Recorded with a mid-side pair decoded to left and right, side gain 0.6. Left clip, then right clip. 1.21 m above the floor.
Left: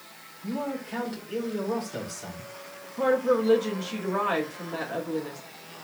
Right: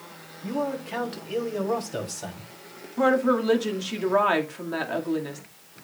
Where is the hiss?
No hiss in this recording.